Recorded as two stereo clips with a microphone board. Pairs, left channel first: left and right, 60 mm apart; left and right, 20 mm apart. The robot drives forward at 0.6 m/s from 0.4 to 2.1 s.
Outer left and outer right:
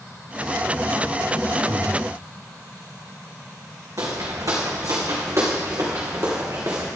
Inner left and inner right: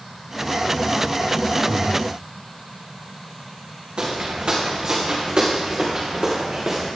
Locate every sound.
1.7 s breathing: 65° right (ahead or behind), 1.7 m; by 2.1 s 70° right (ahead or behind), 1.7 m
4.0 s footsteps: 70° right (ahead or behind), 2.5 m; by 6.9 s 50° right (ahead or behind), 3 m